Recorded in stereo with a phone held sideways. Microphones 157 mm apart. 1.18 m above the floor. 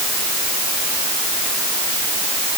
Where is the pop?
I don't hear a pop.